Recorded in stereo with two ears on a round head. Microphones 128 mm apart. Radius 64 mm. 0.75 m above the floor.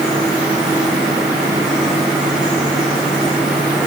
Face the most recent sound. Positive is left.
No sound to turn to.